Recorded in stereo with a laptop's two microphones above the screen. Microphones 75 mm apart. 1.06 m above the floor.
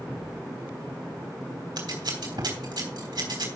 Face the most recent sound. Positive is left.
turn(degrees=-70)  # may be behind; listen again after turning